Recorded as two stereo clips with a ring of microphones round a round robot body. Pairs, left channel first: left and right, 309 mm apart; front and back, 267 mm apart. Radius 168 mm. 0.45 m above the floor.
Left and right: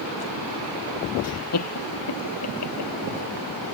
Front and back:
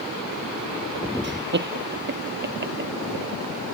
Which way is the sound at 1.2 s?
130° left.